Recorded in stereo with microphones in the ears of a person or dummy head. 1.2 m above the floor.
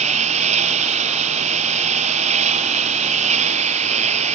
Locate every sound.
0.0 s a lawn mower: 40° right (ahead or behind)